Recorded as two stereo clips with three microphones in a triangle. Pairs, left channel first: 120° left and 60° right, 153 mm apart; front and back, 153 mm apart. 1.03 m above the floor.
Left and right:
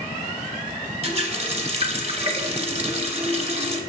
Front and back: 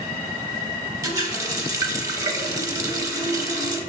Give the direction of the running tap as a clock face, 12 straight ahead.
4 o'clock.